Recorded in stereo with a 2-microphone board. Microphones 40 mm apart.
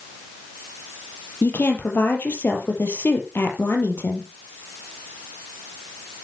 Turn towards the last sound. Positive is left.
turn(degrees=60)  # may be behind; listen again after turning